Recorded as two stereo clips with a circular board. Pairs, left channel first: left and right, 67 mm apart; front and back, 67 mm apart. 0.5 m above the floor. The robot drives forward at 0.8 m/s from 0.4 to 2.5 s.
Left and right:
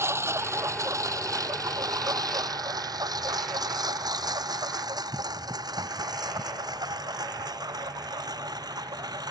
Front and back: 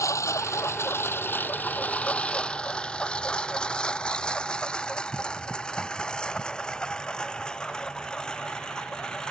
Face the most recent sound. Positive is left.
turn(degrees=-80)